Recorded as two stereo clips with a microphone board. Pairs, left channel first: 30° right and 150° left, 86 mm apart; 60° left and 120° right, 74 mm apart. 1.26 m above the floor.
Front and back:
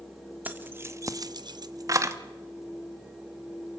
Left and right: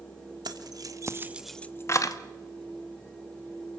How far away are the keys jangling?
About 1.7 m.